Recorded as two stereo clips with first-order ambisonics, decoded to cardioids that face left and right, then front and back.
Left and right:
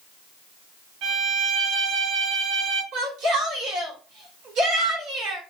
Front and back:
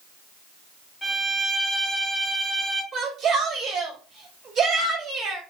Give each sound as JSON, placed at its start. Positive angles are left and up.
{"t": 1.0, "sound": "a violin", "azimuth_deg": -80, "distance_m": 1.2}
{"t": 2.9, "sound": "a shout", "azimuth_deg": -125, "distance_m": 1.6}